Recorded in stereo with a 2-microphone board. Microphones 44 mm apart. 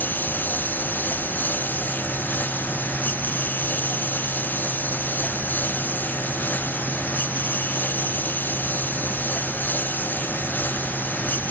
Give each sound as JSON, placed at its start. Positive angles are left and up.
{"t": 0.0, "sound": "a lawn mower", "side_deg": 45}